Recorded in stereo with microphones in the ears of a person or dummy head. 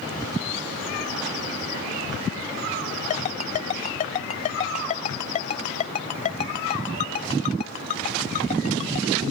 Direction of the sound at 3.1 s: 40° left (ahead or behind).